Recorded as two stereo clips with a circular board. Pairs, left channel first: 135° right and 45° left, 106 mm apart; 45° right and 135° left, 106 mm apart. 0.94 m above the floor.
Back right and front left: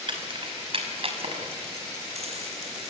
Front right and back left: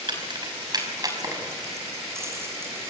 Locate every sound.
0.1 s keys jangling: 90° left, 5 m; by 2.9 s 65° left, 7.5 m